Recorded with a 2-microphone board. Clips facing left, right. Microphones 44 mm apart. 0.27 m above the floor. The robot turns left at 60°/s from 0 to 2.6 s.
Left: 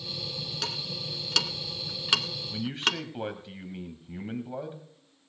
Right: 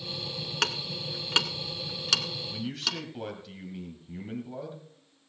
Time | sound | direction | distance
0.6 | ticking | 65° right (ahead or behind) | 1.0 m
2.5 | a man speaking | 25° left (ahead or behind) | 1.6 m